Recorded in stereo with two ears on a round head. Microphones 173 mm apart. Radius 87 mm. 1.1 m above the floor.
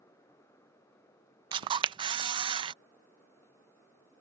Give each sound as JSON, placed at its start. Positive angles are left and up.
{"t": 1.5, "sound": "a camera shutter", "side_deg": -25}